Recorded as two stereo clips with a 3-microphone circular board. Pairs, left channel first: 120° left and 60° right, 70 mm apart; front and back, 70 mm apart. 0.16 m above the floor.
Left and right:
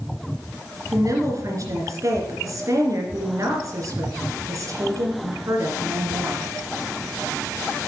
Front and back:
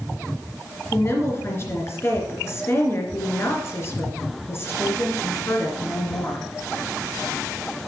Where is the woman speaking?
40° right, 2.5 m.